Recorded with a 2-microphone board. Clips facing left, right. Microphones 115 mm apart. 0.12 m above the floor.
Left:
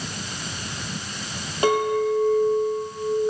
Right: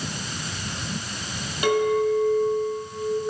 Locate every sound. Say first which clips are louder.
1.6 s a clink: even; 35° left (ahead or behind), 2.5 m